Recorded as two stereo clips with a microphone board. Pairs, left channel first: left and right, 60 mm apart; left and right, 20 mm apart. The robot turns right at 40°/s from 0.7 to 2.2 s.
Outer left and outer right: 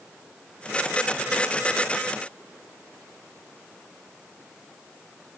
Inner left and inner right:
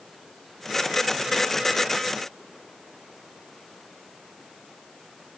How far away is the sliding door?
No sliding door in this recording.